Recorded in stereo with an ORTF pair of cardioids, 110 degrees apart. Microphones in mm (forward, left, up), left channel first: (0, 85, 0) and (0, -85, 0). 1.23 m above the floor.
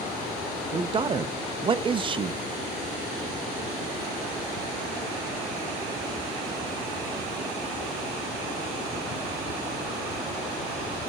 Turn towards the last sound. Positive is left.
turn(degrees=-30)